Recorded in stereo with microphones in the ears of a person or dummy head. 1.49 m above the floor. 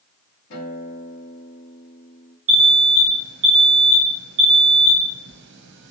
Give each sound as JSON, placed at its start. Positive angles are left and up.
{"t": 0.5, "sound": "a guitar", "side_deg": 60, "distance_m": 1.5}
{"t": 2.5, "sound": "an alarm", "side_deg": -65, "distance_m": 0.9}